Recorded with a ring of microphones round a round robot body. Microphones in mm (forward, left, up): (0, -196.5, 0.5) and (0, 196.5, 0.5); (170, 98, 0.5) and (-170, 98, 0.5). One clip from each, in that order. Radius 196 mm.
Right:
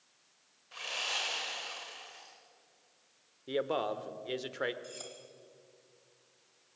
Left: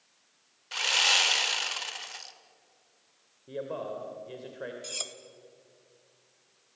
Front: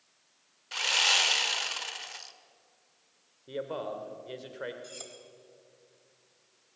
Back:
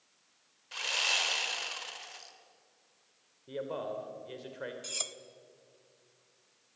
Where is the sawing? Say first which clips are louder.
Left 12 dB, front 5 dB; 60° left, 1.6 m.